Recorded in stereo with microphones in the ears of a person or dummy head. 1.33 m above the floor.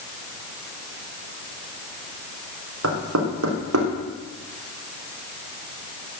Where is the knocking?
75° right (ahead or behind), 3.5 m.